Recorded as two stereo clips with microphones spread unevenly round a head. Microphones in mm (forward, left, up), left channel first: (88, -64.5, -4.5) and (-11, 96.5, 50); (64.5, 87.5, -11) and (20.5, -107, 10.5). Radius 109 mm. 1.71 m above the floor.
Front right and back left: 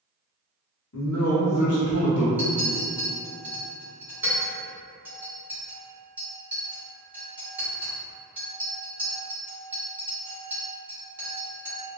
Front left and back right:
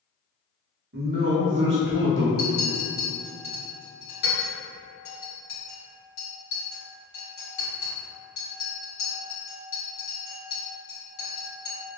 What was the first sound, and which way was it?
A man speaking, 75° right.